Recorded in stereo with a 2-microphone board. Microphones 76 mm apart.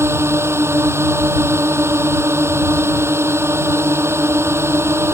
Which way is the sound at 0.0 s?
40° right (ahead or behind).